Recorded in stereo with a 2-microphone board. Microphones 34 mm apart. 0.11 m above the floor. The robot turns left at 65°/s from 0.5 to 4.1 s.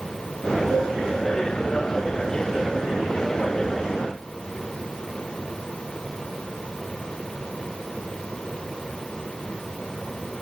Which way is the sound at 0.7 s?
50° right (ahead or behind).